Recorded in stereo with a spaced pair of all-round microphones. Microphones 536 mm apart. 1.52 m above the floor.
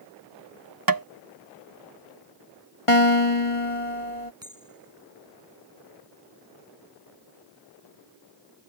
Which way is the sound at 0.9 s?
40° right (ahead or behind).